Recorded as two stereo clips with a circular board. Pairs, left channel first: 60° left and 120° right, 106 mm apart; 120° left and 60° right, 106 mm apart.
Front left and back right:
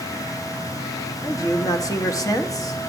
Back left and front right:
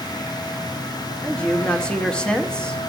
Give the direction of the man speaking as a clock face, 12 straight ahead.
11 o'clock.